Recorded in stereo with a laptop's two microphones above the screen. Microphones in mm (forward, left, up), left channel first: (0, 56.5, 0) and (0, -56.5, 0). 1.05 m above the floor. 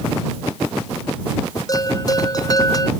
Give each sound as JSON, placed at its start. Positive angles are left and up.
{"t": 1.7, "sound": "a bell", "side_deg": 30}